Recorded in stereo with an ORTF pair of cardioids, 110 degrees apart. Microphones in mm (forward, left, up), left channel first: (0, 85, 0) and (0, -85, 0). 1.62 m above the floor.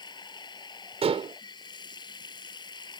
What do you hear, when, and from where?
0.0 s running water: 25° left
1.0 s dishes clattering: 35° right